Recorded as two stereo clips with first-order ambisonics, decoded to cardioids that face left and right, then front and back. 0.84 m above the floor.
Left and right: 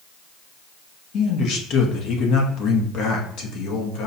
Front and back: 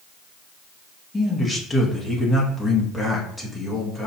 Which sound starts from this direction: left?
A man speaking, at 1.1 s.